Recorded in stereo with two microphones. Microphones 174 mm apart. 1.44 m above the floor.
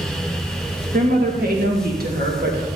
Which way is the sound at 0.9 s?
60° right (ahead or behind).